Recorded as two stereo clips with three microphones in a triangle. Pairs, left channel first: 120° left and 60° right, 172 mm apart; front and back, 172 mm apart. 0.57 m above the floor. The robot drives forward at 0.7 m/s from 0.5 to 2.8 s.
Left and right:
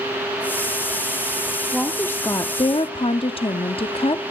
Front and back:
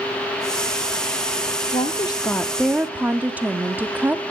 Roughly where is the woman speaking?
Ahead left.